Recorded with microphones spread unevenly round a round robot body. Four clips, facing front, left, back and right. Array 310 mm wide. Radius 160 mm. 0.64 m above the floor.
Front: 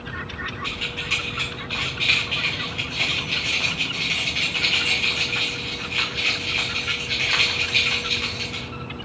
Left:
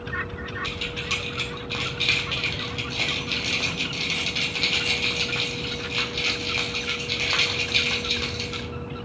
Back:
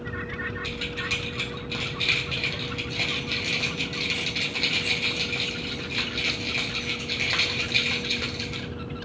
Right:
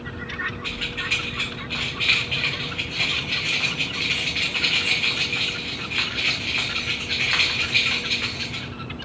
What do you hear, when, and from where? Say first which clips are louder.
0.6 s keys jangling: right 1 dB, front 1 dB; 125° left, 0.6 m